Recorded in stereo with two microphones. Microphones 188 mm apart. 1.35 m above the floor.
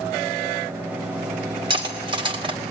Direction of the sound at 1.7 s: 25° right (ahead or behind).